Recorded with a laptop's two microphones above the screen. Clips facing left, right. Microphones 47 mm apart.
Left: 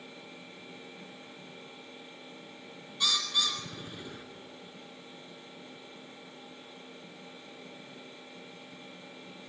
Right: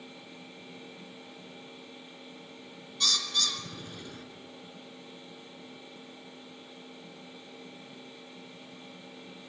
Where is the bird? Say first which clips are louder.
Left 1 dB; 10° left (ahead or behind), 2 m.